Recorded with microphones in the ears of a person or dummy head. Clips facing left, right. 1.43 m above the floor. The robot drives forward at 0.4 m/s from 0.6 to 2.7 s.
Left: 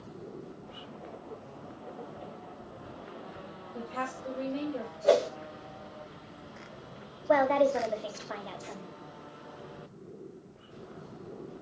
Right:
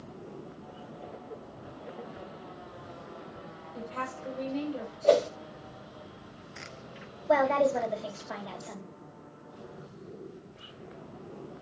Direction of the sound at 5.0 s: 15° left (ahead or behind).